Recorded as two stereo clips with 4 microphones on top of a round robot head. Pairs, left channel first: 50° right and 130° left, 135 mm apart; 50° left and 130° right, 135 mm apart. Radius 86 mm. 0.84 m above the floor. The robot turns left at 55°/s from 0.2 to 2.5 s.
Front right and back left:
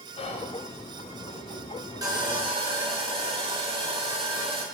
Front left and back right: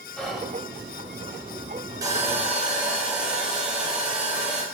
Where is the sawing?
Straight behind, 0.9 m; by 4.6 s 150° left, 0.9 m.